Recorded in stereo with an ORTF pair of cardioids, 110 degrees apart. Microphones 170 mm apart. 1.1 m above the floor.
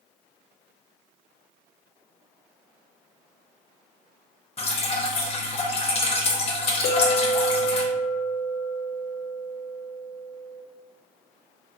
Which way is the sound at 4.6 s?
35° left.